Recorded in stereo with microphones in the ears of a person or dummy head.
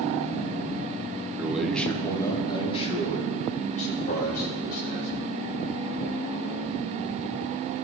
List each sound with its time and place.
1.4 s a man speaking: 10° right (ahead or behind), 0.9 m; by 5.1 s 45° left (ahead or behind), 4 m